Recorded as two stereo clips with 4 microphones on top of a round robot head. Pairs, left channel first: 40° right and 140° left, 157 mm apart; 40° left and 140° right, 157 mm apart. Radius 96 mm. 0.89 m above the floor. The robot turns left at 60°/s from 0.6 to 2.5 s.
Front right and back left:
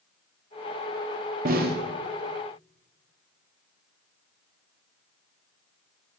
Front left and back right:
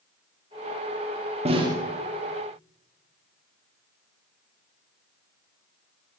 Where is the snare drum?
170° left, 1.4 m; by 1.8 s 150° left, 1.4 m.